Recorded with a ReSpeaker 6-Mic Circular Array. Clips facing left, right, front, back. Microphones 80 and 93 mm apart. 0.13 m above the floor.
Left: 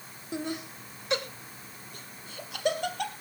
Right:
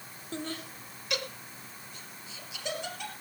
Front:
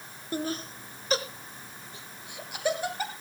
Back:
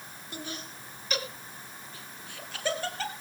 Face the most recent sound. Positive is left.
turn(degrees=75)